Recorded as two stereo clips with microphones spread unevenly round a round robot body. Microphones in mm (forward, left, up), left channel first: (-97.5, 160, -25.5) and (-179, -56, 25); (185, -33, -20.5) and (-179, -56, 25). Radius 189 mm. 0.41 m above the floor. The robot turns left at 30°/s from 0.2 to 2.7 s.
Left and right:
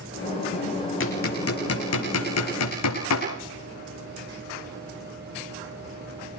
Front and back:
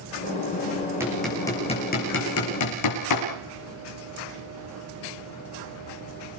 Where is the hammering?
100° left, 8 m; by 3.3 s 50° left, 8 m.